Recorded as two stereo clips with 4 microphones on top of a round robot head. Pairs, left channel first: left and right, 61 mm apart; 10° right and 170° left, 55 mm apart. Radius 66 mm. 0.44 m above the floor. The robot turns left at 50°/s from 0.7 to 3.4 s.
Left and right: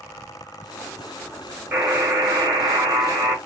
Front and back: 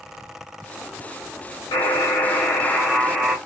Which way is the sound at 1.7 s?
30° right.